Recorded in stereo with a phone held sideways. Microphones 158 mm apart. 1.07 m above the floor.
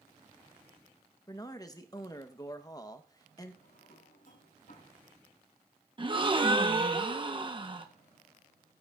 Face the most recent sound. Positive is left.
turn(degrees=-30)  # may be behind; listen again after turning